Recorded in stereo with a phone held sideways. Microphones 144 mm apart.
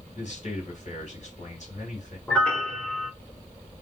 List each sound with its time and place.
0.1 s a man speaking: 50° left (ahead or behind), 1.8 m
2.3 s a piano: 5° left (ahead or behind), 0.8 m